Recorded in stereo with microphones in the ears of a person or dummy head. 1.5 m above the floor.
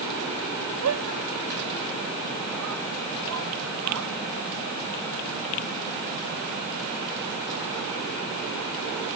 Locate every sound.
0.8 s a shout: 90° right; by 4.1 s 80° right